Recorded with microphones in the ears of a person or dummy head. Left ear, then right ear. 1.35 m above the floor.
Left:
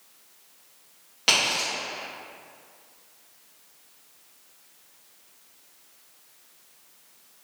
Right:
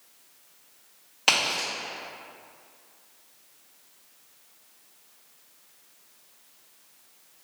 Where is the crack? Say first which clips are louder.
Left 1 dB; 35° right (ahead or behind), 1.6 m.